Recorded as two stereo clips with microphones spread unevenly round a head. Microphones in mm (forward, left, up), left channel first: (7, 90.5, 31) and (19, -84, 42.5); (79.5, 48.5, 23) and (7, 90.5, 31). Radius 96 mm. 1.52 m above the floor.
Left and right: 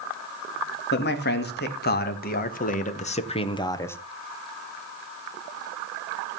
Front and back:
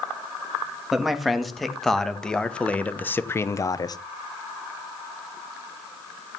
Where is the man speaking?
65° left, 3 m; by 4.0 s 15° left, 1.2 m.